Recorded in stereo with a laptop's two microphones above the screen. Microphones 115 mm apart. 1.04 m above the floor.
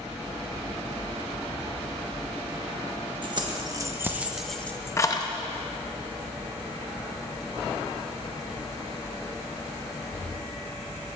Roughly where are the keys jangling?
Right.